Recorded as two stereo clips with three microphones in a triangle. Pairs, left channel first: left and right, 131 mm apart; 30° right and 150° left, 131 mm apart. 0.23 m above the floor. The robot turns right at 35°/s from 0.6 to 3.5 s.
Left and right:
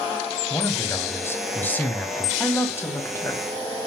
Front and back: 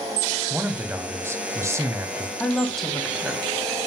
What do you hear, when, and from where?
0.5 s a man speaking: 100° left, 1.0 m; by 2.3 s 160° left, 1.0 m
2.4 s a woman speaking: 40° left, 1.5 m; by 3.4 s 75° left, 1.5 m